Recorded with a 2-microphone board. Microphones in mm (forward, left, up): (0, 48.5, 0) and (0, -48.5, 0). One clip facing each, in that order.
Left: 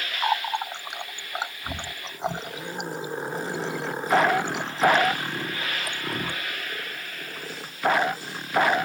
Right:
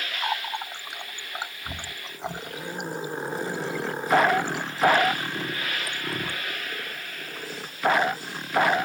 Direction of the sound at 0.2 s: 20° left (ahead or behind).